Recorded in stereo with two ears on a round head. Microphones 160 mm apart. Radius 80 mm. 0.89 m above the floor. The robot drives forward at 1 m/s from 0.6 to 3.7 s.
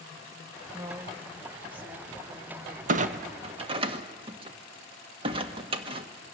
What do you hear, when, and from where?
0.7 s a woman speaking: 20° right (ahead or behind), 0.8 m; by 2.8 s 5° right (ahead or behind), 3 m
2.9 s a clunk: 45° right (ahead or behind), 1.0 m; by 6.1 s 30° right (ahead or behind), 1.4 m